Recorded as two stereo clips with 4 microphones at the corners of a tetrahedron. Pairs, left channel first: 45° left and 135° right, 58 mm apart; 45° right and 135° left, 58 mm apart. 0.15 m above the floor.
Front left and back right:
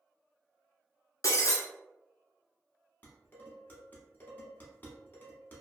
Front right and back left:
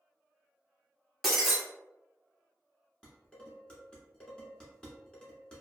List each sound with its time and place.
1.2 s breaking glass: 50° left, 0.9 m
3.0 s dishes clattering: 20° left, 0.9 m